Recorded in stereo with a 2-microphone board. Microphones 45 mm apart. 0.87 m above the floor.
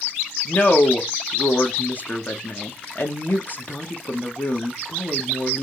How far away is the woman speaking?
About 1.0 m.